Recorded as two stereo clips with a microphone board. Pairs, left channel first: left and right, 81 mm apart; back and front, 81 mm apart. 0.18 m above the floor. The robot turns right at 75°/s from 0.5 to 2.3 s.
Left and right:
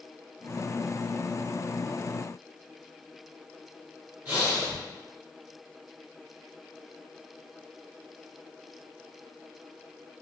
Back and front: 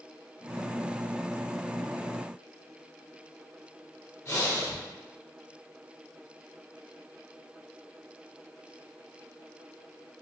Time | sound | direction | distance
4.2 | breathing | 155° right | 1.8 m